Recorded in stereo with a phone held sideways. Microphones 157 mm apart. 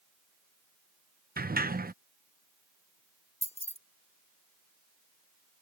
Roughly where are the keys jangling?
Left.